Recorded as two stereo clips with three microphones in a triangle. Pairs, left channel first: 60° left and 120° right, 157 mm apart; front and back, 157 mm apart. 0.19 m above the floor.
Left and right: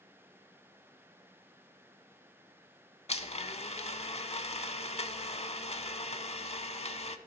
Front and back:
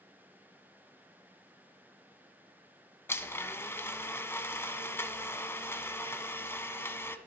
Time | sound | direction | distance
3.1 | a blender | 70° left | 0.5 m